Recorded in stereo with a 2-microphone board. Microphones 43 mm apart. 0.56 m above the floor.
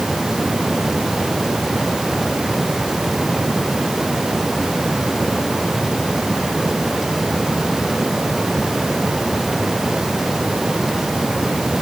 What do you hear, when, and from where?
Only background noise.